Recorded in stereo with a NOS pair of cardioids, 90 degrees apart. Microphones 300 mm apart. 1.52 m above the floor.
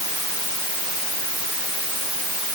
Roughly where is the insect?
I don't hear an insect.